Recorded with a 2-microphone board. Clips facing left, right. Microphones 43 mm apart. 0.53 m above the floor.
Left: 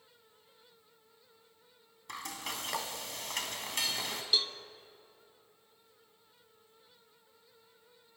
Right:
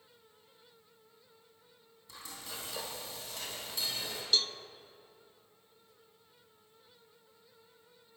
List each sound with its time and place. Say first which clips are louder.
2.1 s frying: left 6 dB; 70° left (ahead or behind), 2.5 m
4.3 s a cowbell: right 1 dB; 10° left (ahead or behind), 0.5 m